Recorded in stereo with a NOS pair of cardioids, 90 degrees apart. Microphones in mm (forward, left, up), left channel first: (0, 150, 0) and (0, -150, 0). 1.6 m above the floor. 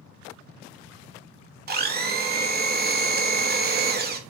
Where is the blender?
35° right, 0.8 m.